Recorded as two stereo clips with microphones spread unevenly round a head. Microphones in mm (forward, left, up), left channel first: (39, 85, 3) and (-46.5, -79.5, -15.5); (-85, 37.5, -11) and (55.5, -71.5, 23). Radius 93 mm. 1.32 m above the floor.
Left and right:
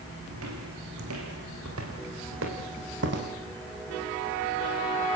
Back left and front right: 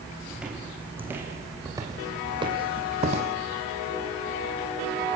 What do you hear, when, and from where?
0.3 s footsteps: 120° right, 5.5 m; by 3.4 s 85° right, 4 m